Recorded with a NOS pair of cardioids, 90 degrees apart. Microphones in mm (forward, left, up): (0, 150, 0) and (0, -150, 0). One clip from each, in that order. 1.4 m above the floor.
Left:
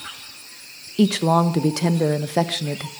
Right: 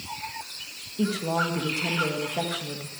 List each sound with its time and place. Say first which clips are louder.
1.0 s a woman speaking: left 8 dB; 65° left, 1.3 m